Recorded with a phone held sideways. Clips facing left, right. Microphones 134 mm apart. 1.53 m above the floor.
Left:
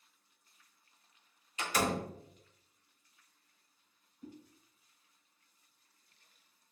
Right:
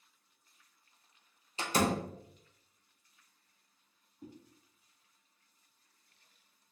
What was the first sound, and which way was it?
A door slam, 30° right (ahead or behind).